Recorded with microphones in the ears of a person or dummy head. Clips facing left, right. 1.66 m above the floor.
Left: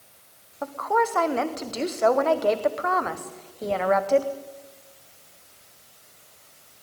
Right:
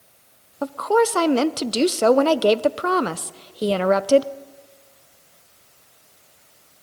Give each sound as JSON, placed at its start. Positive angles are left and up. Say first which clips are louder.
{"t": 0.6, "sound": "a woman speaking", "louder": "right 6 dB", "side_deg": -50, "distance_m": 0.9}